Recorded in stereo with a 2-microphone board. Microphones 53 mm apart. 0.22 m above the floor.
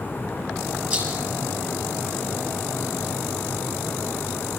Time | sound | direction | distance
0.9 | a rattle | 35° right (ahead or behind) | 5 m